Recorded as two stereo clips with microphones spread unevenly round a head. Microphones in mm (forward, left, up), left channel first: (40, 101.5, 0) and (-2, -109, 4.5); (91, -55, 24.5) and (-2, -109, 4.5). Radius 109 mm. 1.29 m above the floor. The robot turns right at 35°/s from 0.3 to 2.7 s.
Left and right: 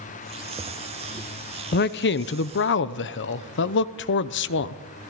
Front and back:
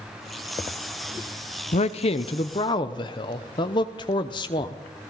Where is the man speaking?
50° left, 0.8 m; by 4.8 s 85° left, 0.8 m.